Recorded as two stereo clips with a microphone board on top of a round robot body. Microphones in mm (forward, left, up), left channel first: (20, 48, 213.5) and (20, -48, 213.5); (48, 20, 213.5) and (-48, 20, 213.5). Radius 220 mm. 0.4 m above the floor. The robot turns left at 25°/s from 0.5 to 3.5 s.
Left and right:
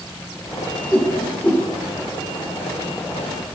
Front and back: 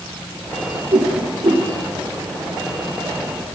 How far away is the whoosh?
About 2 m.